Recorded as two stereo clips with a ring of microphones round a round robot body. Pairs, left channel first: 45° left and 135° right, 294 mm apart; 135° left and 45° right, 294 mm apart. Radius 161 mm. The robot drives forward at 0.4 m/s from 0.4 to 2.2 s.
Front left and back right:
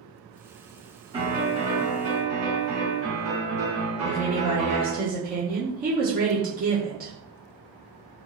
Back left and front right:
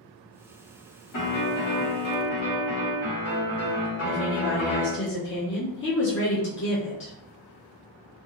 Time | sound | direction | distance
1.1 | a piano | 150° left | 1.3 m
4.0 | a woman speaking | 175° left | 0.8 m